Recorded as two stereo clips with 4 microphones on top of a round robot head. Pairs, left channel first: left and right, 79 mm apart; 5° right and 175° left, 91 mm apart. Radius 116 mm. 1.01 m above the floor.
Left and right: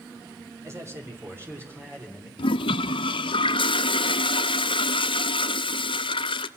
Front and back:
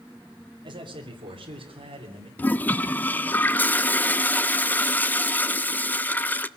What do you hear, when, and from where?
0.6 s a man speaking: 140° right, 3 m; by 2.3 s 155° right, 4 m
2.4 s a toilet flushing: 70° left, 0.6 m